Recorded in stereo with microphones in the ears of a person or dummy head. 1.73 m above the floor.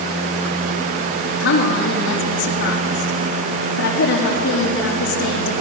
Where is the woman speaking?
70° left (ahead or behind), 4.5 m.